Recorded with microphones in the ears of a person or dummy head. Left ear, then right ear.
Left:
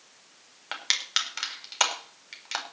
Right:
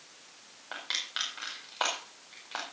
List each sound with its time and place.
0.7 s crushing: 75° left (ahead or behind), 4.5 m